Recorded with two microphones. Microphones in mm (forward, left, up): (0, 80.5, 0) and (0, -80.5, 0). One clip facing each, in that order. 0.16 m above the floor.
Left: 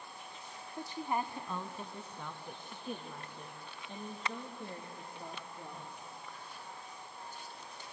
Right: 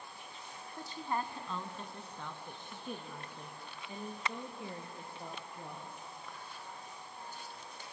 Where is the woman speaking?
15° left (ahead or behind), 1.1 m; by 6.0 s 10° right (ahead or behind), 3 m.